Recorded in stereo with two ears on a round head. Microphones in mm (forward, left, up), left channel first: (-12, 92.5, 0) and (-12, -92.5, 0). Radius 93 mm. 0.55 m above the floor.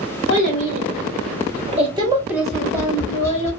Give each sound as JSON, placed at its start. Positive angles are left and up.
{"t": 0.3, "sound": "a child speaking", "side_deg": -55, "distance_m": 1.2}
{"t": 2.5, "sound": "tapping", "side_deg": 15, "distance_m": 0.7}